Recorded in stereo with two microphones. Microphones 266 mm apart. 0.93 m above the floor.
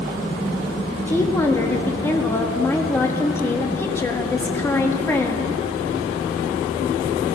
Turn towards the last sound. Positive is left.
turn(degrees=10)  # may be behind; listen again after turning